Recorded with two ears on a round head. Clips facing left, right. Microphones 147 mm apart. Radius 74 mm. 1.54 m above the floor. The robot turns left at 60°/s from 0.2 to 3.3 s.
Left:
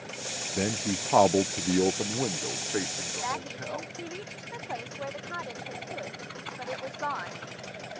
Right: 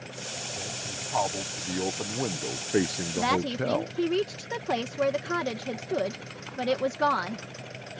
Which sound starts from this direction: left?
A man speaking, at 0.6 s.